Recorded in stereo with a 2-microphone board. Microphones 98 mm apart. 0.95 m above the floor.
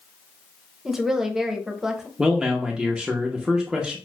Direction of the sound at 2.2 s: 10° right (ahead or behind).